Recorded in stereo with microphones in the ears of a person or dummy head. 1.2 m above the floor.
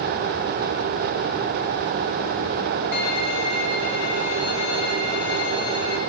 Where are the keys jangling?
I don't hear keys jangling.